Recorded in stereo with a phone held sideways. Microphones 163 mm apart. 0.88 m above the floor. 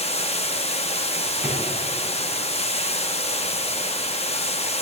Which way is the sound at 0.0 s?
40° left (ahead or behind).